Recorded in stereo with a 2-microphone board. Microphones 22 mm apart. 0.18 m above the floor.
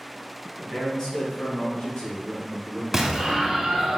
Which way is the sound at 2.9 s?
10° right (ahead or behind).